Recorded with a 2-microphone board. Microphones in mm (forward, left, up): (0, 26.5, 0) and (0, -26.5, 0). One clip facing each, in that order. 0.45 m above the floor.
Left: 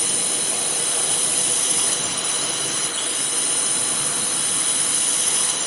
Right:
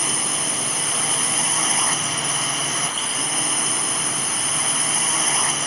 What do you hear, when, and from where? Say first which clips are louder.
0.0 s a drone: right 3 dB; 45° right (ahead or behind)